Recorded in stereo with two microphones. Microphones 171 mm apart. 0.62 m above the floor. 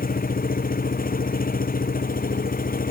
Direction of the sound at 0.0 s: 60° left (ahead or behind).